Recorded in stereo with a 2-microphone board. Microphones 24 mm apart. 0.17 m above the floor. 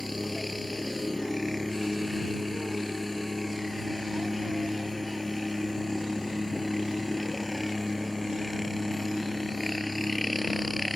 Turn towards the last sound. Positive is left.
turn(degrees=-5)  # may be behind; listen again after turning